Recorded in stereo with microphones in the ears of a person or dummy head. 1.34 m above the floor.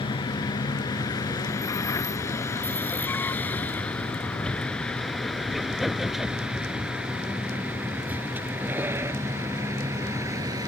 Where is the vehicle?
25° left (ahead or behind); by 10.7 s 15° right (ahead or behind).